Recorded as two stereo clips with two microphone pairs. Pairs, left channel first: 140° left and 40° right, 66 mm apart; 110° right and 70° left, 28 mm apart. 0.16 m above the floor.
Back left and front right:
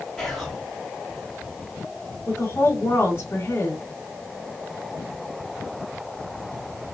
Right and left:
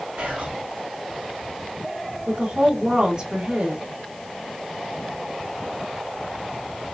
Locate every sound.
0.2 s whispering: 50° left, 3 m
2.3 s a woman speaking: 100° left, 2.5 m